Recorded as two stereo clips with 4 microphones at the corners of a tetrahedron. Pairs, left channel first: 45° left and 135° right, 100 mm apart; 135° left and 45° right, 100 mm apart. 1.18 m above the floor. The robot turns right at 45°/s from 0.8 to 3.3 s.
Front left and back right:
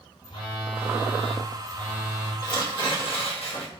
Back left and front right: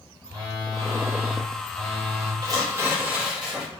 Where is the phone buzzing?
5° left, 1.1 m; by 2.3 s 70° left, 1.1 m.